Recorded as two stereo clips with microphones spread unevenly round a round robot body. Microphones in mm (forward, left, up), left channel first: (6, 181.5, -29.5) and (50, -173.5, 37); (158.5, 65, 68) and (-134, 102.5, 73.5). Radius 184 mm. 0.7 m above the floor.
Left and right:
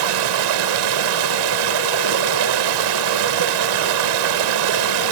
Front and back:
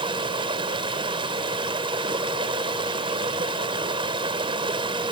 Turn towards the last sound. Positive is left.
turn(degrees=-110)